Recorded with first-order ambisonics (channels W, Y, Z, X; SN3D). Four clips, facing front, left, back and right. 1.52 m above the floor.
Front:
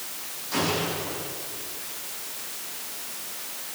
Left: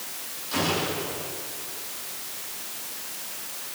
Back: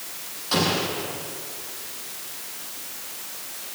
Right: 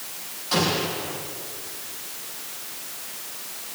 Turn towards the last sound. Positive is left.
turn(degrees=-150)